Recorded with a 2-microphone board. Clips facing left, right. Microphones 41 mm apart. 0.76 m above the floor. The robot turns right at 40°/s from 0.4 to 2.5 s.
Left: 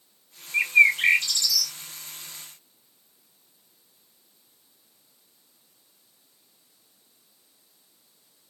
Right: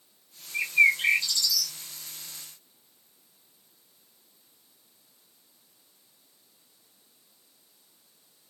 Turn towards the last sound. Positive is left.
turn(degrees=145)